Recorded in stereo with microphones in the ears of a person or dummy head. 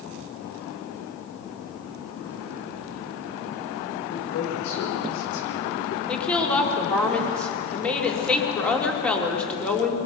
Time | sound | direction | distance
4.1 | a man speaking | 65° left (ahead or behind) | 5.5 m
6.1 | a woman speaking | 15° left (ahead or behind) | 2.5 m